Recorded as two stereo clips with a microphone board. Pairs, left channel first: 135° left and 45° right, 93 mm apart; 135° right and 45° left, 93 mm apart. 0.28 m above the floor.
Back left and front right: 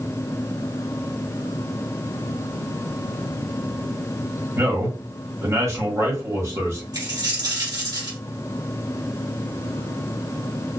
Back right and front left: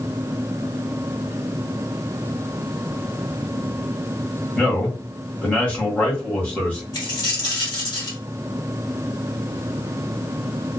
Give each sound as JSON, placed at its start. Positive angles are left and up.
{"t": 4.6, "sound": "a man speaking", "azimuth_deg": -75, "distance_m": 1.2}
{"t": 6.9, "sound": "a dropped coin", "azimuth_deg": -90, "distance_m": 1.7}